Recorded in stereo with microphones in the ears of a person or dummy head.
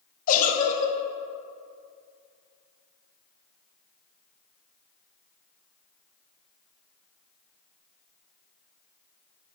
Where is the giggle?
45° left (ahead or behind), 0.7 m.